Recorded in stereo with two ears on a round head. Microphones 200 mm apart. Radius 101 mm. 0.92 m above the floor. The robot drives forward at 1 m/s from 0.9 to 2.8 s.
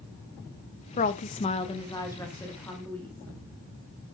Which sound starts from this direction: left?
A woman speaking, at 1.0 s.